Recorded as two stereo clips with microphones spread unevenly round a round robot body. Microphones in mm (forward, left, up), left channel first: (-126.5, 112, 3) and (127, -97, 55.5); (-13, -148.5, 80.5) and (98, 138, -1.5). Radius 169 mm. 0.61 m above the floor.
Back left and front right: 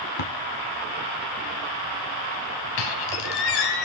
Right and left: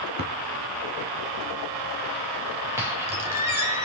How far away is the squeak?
About 1.5 m.